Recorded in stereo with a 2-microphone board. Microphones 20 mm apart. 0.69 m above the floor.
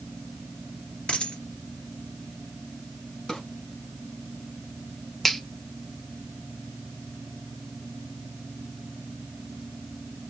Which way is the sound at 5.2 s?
15° left (ahead or behind).